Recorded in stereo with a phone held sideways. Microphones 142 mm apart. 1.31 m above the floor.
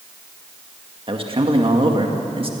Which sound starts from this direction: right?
A man speaking, at 1.1 s.